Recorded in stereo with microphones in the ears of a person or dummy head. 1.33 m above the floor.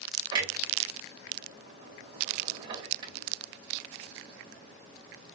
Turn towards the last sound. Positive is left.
turn(degrees=-30)  # may be behind; listen again after turning